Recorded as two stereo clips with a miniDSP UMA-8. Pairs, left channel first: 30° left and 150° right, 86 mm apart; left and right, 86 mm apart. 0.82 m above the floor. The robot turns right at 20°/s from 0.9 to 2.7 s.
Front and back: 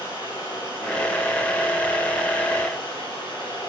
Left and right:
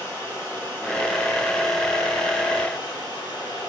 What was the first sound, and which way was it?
Running water, 25° left.